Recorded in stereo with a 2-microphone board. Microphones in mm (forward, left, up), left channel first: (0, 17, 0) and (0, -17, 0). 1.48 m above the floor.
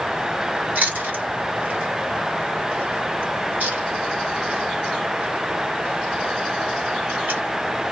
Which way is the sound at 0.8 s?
60° right (ahead or behind).